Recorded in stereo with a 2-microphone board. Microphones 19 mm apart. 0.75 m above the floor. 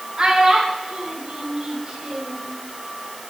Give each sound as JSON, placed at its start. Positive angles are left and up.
{"t": 0.2, "sound": "a child speaking", "side_deg": -25, "distance_m": 5.5}